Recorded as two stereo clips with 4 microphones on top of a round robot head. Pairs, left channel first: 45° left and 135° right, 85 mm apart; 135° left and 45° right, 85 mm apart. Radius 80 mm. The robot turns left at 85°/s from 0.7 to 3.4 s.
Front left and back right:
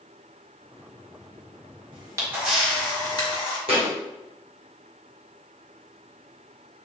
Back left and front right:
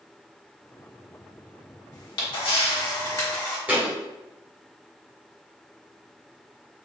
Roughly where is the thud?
Behind right.